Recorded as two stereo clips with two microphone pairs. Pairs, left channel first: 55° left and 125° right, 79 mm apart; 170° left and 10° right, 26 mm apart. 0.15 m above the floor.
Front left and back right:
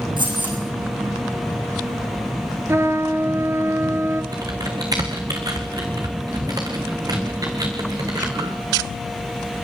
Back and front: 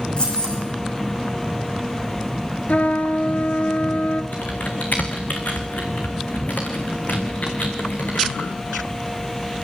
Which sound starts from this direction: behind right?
Keys jangling, at 0.2 s.